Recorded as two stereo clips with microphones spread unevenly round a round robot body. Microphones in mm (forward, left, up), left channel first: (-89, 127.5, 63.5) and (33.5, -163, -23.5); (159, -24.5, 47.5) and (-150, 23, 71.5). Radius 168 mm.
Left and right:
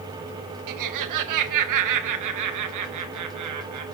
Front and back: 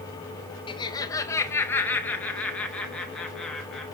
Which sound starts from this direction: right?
Laughter, at 0.7 s.